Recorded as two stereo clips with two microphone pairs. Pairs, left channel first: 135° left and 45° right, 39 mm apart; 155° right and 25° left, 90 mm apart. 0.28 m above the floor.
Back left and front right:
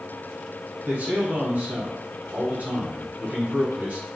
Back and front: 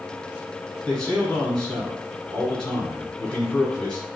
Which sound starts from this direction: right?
A man speaking, at 0.8 s.